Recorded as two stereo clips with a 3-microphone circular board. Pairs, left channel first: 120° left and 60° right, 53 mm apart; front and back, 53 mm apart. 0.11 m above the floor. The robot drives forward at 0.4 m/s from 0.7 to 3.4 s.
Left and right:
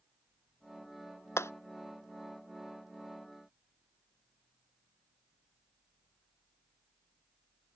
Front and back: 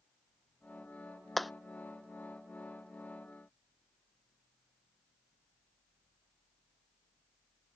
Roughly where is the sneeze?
No sneeze in this recording.